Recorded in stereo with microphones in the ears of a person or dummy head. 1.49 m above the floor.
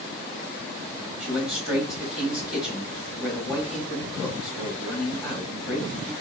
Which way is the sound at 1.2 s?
5° right (ahead or behind).